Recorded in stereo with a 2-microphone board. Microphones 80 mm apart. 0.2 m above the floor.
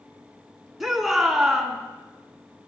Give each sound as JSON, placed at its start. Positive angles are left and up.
{"t": 0.8, "sound": "a shout", "side_deg": -5, "distance_m": 1.9}